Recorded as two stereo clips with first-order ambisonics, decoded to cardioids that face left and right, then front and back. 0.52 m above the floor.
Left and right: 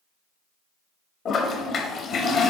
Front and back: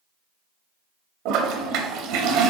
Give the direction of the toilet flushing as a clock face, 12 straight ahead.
7 o'clock.